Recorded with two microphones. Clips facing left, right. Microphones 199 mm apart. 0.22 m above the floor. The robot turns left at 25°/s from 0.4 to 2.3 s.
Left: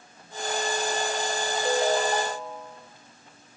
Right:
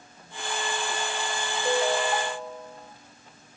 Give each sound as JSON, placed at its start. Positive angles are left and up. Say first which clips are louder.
{"t": 1.6, "sound": "a ringtone", "louder": "left 1 dB", "side_deg": 30, "distance_m": 3.0}